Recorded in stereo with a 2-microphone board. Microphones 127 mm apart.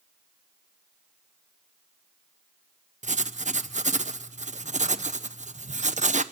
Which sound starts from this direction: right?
Writing, at 3.0 s.